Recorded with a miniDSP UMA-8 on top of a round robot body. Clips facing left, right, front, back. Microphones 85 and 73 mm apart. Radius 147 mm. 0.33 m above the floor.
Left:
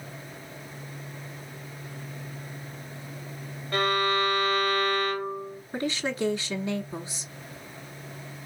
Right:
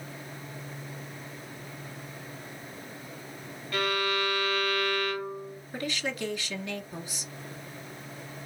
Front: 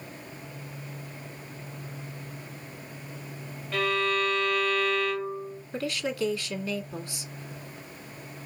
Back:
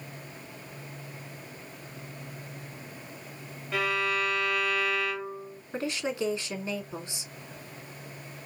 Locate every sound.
3.7 s a violin: 105° left, 0.9 m
5.7 s a woman speaking: 130° left, 1.6 m